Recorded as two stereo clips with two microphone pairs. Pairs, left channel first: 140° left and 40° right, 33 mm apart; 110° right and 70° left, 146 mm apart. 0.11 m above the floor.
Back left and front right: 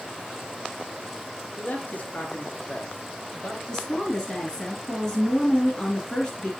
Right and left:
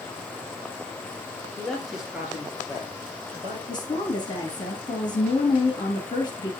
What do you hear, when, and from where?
1.6 s a man speaking: 170° left, 2.5 m; by 3.6 s 110° left, 2.5 m
3.7 s a woman speaking: 155° right, 2.5 m